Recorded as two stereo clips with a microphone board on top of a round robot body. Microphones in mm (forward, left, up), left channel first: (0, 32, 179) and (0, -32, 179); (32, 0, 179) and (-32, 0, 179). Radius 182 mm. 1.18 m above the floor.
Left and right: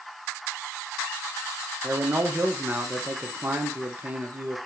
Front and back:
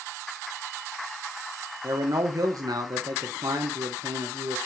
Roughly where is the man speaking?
Behind.